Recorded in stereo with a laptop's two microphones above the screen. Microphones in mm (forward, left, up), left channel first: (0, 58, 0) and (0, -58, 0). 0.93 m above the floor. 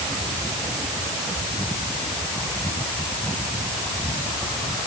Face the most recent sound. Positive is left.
No sound to turn to.